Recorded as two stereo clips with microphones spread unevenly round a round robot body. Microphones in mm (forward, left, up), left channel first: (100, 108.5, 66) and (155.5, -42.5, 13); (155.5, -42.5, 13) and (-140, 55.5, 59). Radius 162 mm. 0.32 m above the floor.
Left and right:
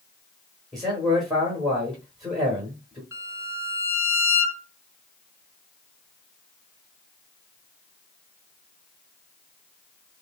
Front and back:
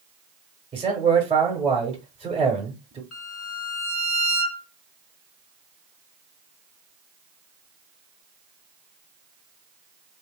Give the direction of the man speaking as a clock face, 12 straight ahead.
4 o'clock.